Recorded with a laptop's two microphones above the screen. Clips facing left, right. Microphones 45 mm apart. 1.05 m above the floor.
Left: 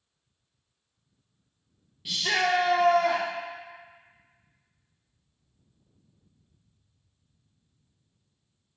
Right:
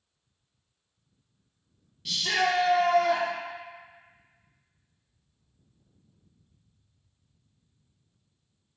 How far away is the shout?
About 0.5 m.